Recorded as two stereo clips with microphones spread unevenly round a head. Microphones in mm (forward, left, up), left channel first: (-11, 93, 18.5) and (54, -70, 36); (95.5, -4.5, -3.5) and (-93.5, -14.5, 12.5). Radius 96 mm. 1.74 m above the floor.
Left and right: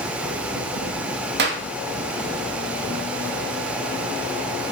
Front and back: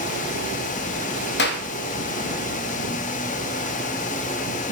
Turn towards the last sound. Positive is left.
turn(degrees=-35)